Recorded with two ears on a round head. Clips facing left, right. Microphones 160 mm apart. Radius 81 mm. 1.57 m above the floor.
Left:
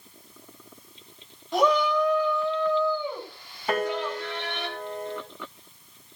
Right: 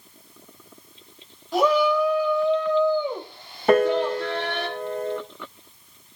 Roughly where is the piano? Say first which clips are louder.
Right 9 dB; right.